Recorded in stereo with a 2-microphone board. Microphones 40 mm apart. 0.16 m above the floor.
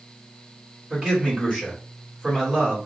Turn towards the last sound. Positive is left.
turn(degrees=-20)  # may be behind; listen again after turning